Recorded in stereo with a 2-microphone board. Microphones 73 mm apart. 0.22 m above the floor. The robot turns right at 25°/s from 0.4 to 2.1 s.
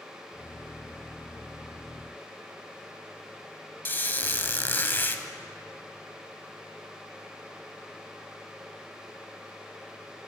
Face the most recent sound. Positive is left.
turn(degrees=30)  # may be behind; listen again after turning